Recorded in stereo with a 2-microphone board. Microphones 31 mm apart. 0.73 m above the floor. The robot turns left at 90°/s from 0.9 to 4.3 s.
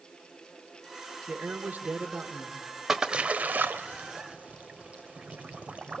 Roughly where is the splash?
Centre.